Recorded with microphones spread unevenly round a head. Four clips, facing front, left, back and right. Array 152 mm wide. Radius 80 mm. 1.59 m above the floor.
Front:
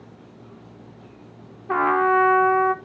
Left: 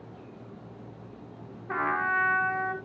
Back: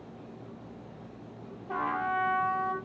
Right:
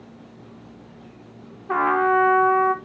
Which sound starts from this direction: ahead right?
A trumpet, at 1.7 s.